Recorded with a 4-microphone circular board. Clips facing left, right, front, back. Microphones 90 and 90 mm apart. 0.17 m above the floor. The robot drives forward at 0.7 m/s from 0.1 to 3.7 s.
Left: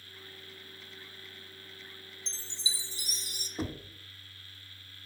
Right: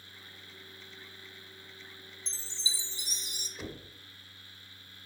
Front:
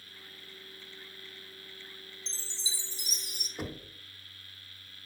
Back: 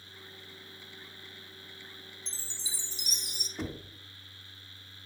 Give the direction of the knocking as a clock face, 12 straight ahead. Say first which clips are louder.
Left 7 dB, back 1 dB; 9 o'clock.